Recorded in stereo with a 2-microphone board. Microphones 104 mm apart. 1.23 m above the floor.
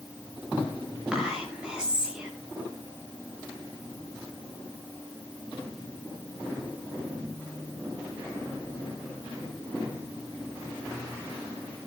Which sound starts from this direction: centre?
Whispering, at 1.1 s.